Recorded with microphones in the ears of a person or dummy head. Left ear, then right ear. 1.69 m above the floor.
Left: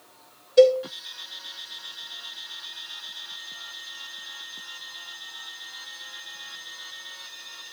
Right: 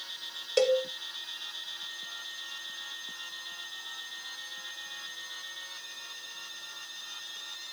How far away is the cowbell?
About 0.9 m.